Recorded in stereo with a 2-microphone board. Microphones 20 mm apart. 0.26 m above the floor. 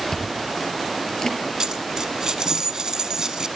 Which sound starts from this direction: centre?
Chewing, at 0.1 s.